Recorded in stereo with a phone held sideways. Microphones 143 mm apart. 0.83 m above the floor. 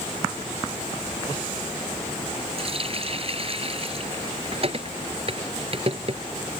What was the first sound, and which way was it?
A running tap, 40° right (ahead or behind).